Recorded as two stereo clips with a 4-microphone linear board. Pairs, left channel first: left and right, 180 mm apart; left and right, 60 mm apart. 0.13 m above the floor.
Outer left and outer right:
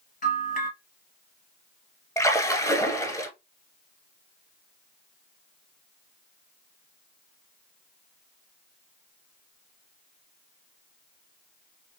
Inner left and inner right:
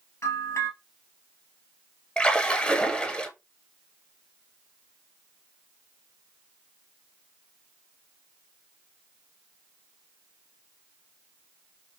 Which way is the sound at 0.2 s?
50° left (ahead or behind).